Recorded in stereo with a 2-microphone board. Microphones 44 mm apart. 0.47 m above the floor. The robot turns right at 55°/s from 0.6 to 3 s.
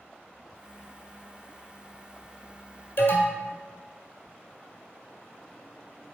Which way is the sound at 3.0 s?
60° left (ahead or behind).